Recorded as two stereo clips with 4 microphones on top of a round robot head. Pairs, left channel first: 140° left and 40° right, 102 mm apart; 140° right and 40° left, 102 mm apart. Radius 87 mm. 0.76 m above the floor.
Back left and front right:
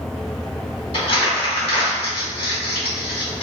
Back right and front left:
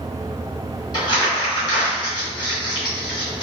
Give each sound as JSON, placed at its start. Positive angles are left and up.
{"t": 0.9, "sound": "crumpling", "azimuth_deg": 170, "distance_m": 1.8}